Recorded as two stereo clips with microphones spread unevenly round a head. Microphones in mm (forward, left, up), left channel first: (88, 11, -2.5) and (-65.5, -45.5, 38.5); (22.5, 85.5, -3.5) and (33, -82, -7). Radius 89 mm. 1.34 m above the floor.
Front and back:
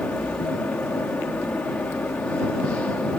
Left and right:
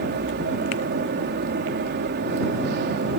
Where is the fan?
65° right.